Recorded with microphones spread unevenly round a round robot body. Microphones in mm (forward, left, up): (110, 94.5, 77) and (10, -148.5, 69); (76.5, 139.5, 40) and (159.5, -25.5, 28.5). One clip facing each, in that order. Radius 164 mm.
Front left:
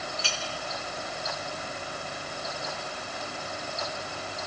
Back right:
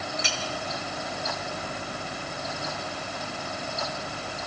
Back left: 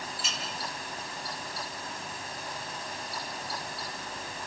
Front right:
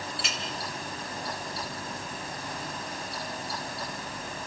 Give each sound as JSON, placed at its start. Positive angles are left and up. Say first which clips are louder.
{"t": 0.2, "sound": "a clink", "louder": "back right 3 dB, front right 3 dB", "azimuth_deg": -40, "distance_m": 3.5}